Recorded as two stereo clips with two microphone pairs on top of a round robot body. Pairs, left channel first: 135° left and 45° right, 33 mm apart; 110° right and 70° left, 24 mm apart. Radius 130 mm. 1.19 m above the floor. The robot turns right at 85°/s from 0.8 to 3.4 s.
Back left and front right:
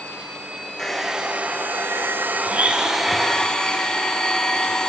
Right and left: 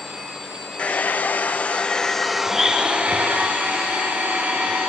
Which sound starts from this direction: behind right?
A hair dryer, at 0.8 s.